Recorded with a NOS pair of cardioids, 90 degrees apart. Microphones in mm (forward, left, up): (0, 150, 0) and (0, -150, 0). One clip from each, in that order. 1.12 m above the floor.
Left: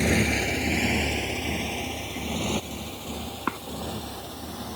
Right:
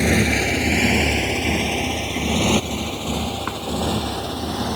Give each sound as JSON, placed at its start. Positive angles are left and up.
{"t": 0.0, "sound": "a motorcycle", "azimuth_deg": -35}
{"t": 3.5, "sound": "a cough", "azimuth_deg": 10}